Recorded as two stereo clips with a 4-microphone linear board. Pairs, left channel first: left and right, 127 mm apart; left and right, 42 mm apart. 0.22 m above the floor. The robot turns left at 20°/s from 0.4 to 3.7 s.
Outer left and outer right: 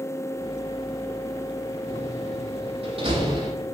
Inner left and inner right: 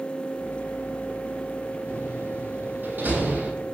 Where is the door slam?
70° right (ahead or behind), 6.5 m; by 3.5 s 35° right (ahead or behind), 6.5 m.